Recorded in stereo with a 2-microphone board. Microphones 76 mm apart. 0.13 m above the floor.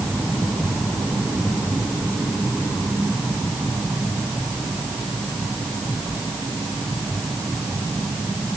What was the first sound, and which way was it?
Only background noise.